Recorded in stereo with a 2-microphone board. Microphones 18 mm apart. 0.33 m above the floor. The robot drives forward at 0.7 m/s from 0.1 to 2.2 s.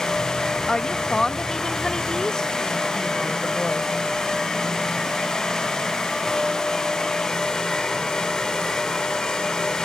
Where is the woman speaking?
30° left (ahead or behind); by 3.9 s 35° left (ahead or behind).